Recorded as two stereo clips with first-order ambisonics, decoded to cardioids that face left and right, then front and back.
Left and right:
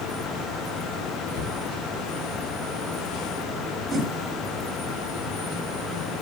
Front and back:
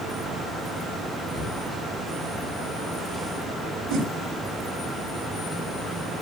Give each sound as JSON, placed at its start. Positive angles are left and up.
{"t": 1.3, "sound": "a cupboard door", "azimuth_deg": 95, "distance_m": 2.5}
{"t": 3.9, "sound": "a whoosh", "azimuth_deg": -160, "distance_m": 3.0}